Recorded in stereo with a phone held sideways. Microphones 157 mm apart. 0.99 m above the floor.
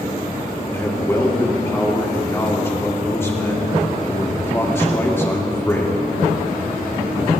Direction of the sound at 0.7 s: 15° left (ahead or behind).